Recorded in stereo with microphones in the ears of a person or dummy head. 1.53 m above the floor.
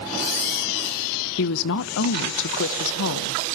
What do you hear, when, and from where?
1.4 s a woman speaking: 65° left (ahead or behind), 1.0 m